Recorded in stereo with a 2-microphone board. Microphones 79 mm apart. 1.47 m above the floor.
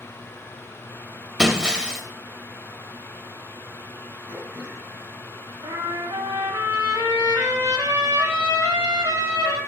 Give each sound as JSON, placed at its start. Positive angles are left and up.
{"t": 1.4, "sound": "breaking glass", "side_deg": -10, "distance_m": 1.5}
{"t": 4.3, "sound": "throat clearing", "side_deg": -35, "distance_m": 7.5}
{"t": 5.6, "sound": "a trumpet", "side_deg": -50, "distance_m": 3.5}